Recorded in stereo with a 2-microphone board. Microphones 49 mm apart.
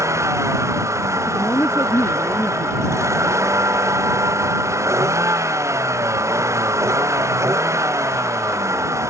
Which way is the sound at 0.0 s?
85° right.